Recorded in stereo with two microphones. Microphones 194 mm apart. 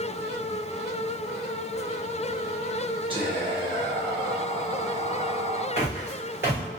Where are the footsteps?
10° right (ahead or behind), 1.6 m.